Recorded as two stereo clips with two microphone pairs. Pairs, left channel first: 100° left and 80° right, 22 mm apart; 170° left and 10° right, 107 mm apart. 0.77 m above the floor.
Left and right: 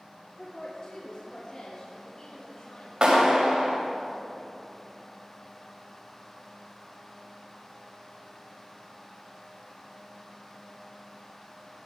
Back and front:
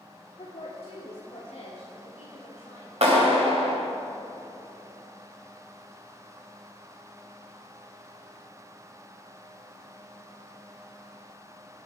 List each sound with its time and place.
0.4 s a woman speaking: 145° left, 1.7 m; by 2.9 s 155° left, 3.5 m
3.0 s a clap: 25° right, 2.5 m